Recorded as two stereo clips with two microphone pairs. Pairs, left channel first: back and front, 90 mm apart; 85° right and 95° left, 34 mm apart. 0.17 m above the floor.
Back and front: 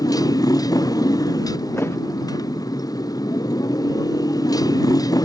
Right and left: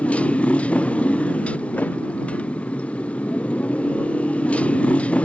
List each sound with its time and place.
0.0 s a motorcycle: 135° right
1.8 s a thud: 120° right